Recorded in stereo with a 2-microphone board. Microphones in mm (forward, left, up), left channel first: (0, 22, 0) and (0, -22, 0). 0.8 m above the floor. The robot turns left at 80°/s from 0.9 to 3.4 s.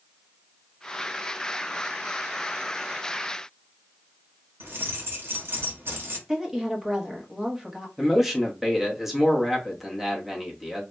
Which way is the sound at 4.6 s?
60° right (ahead or behind).